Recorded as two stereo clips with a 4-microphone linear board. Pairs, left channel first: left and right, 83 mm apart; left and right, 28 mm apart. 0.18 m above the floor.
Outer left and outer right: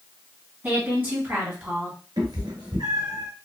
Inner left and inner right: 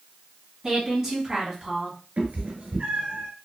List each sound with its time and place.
0.6 s a woman speaking: 25° right (ahead or behind), 1.7 m; by 2.0 s 20° right (ahead or behind), 1.4 m
2.2 s a cat meowing: 65° right (ahead or behind), 1.2 m